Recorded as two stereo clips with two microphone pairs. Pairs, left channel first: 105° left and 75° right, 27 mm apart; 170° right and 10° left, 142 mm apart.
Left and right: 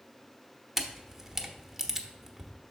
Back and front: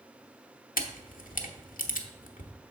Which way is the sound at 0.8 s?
155° right.